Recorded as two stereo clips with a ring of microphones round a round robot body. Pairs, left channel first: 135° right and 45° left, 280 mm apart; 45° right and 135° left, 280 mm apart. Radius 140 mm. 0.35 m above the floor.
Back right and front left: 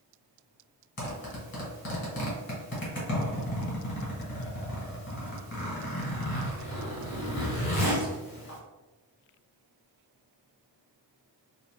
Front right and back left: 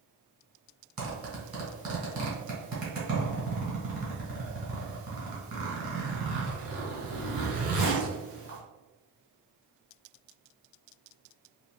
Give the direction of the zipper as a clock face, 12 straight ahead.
6 o'clock.